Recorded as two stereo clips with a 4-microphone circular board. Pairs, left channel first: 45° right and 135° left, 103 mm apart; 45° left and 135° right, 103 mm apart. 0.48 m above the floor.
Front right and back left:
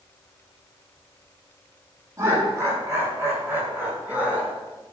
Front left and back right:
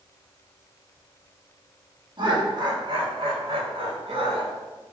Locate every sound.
2.2 s laughter: 170° right, 5.5 m; by 4.5 s 150° right, 6 m